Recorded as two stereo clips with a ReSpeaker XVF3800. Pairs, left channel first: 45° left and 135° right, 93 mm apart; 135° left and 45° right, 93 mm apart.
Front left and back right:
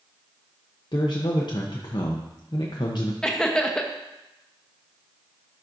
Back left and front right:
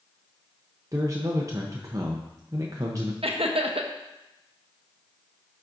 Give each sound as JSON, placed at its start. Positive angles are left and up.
{"t": 0.9, "sound": "a man speaking", "azimuth_deg": 10, "distance_m": 0.6}
{"t": 3.2, "sound": "laughter", "azimuth_deg": -40, "distance_m": 0.8}